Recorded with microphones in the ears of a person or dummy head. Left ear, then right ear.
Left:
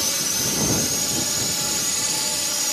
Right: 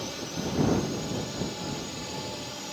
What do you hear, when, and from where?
0.0 s a drone: 65° left (ahead or behind)